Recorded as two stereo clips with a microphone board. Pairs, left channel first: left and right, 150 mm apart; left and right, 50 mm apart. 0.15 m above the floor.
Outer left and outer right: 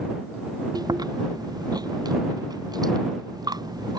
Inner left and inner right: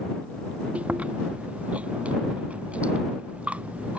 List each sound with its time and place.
0.8 s chewing: 25° right (ahead or behind)